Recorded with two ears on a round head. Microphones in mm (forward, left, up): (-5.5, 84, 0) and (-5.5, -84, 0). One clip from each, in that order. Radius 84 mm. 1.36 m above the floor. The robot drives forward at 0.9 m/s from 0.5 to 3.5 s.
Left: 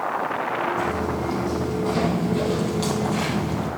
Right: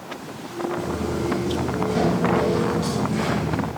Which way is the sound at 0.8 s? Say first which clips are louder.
Left 2 dB; 25° left (ahead or behind).